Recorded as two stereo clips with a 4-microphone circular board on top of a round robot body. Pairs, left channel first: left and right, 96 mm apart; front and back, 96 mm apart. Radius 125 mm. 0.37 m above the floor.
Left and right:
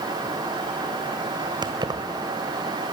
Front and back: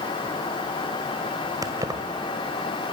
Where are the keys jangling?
130° right, 1.6 m.